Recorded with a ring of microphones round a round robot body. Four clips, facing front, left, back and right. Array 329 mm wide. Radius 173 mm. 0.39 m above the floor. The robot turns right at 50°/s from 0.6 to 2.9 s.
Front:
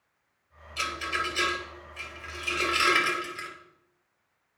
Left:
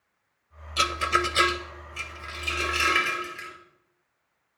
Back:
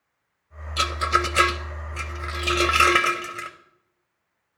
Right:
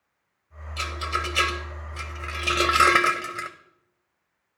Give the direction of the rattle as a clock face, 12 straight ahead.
7 o'clock.